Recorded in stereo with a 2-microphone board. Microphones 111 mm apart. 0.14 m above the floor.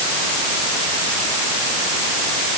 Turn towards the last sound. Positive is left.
No sound to turn to.